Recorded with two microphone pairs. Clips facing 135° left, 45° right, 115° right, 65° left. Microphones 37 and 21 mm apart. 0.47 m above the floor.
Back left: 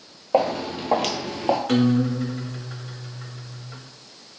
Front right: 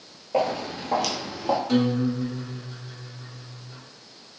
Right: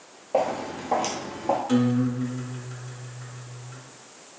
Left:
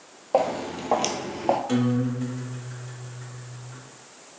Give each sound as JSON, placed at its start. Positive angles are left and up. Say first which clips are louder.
{"t": 0.3, "sound": "footsteps", "louder": "back left 3 dB, left 1 dB", "azimuth_deg": 115, "distance_m": 1.0}
{"t": 1.7, "sound": "a guitar", "louder": "back left 3 dB, right 1 dB", "azimuth_deg": 145, "distance_m": 0.7}